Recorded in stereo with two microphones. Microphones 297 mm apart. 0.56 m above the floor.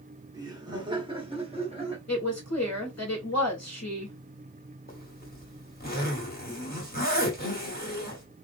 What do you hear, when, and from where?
0.3 s laughter: 15° right (ahead or behind), 1.4 m; by 2.0 s 20° right (ahead or behind), 1.1 m
2.1 s a woman speaking: 60° left (ahead or behind), 2 m
4.9 s a zipper: 30° left (ahead or behind), 1.3 m